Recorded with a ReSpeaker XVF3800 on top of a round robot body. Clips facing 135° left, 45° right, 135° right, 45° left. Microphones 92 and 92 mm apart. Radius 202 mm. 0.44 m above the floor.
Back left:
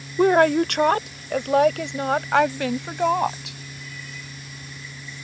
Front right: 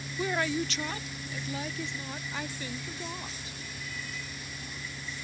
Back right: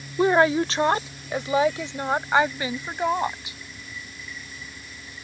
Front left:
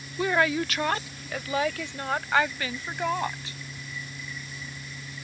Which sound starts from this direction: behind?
A woman speaking, at 0.2 s.